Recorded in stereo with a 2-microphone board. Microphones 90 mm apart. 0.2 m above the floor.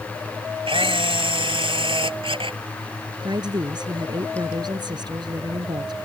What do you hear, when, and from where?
0.7 s a camera shutter: 75° right (ahead or behind)
3.2 s a woman speaking: 55° right (ahead or behind)